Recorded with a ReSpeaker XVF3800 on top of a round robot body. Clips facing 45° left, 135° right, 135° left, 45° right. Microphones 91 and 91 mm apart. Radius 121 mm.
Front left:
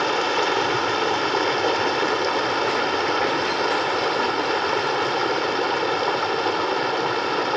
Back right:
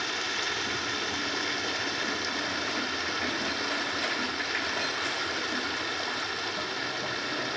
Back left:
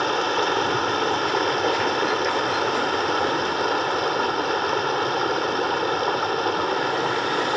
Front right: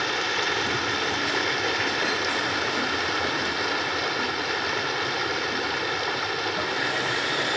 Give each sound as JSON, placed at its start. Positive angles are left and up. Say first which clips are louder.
{"t": 0.0, "sound": "running water", "louder": "front left 13 dB, back left 6 dB", "azimuth_deg": 85}